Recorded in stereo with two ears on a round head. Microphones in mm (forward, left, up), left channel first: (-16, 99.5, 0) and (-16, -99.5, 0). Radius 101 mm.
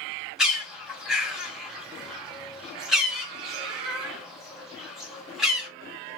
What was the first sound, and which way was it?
A bird, centre (ahead or behind).